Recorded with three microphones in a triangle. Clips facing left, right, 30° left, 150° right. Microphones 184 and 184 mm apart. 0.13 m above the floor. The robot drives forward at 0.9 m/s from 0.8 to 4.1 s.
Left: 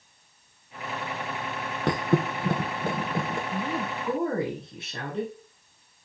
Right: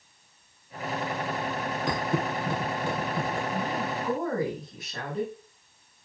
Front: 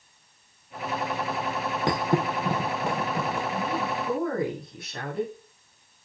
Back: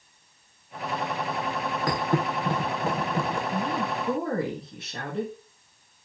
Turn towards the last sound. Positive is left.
turn(degrees=150)